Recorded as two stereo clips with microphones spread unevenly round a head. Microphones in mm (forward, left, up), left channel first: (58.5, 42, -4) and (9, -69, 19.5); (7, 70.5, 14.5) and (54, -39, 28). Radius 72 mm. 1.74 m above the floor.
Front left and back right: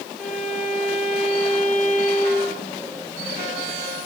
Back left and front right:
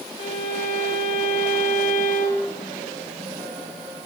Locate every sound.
0.2 s a violin: 160° left, 0.8 m